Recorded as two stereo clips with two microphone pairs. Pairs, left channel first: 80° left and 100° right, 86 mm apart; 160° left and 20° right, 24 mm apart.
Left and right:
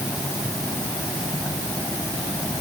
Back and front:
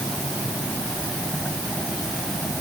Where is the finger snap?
No finger snap in this recording.